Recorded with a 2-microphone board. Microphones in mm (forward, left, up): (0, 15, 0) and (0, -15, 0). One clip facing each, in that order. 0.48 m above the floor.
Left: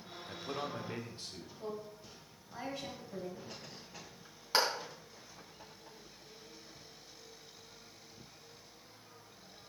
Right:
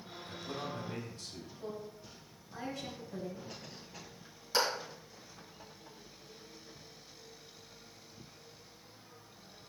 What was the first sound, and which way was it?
A man speaking, 30° left (ahead or behind).